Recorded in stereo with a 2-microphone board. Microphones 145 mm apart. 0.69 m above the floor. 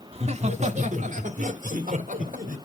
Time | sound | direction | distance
0.1 | laughter | 45° right (ahead or behind) | 1.3 m